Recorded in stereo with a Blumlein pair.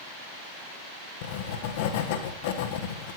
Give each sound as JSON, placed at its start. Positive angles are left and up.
{"t": 1.2, "sound": "writing", "azimuth_deg": 50, "distance_m": 1.2}